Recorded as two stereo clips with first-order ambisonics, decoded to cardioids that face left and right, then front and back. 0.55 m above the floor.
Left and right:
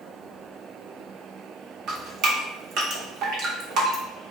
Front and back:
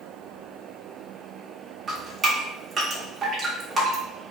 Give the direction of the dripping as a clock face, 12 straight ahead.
4 o'clock.